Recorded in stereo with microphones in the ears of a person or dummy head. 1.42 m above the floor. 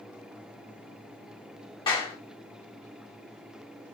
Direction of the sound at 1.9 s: 30° left (ahead or behind).